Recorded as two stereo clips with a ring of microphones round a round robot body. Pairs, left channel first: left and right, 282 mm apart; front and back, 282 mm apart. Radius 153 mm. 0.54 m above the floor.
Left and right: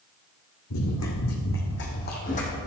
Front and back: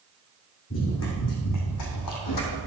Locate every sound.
0.7 s running footsteps: 55° left, 2 m; by 2.6 s 20° left, 1.6 m